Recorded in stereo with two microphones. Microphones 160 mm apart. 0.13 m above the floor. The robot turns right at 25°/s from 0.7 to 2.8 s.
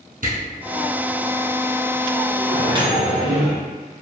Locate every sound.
0.2 s a camera shutter: 65° right (ahead or behind), 1.8 m
2.5 s a microwave: 30° right (ahead or behind), 1.5 m